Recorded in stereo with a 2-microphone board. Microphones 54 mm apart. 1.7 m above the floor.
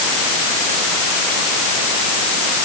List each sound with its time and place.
Only background noise.